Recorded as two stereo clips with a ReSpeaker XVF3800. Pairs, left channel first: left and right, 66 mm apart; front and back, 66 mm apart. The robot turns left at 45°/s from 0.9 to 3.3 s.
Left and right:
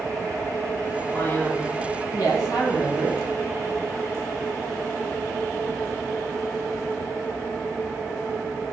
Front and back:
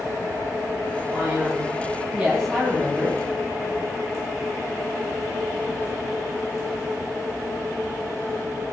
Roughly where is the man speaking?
Behind left.